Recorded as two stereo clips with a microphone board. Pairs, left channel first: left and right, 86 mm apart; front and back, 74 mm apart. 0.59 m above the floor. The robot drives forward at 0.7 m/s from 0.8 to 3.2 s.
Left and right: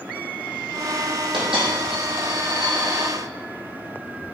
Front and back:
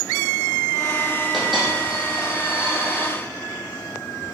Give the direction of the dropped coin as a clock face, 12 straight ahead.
3 o'clock.